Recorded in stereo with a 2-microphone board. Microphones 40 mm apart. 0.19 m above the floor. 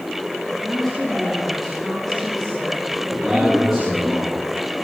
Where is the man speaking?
5° right (ahead or behind), 6.5 m.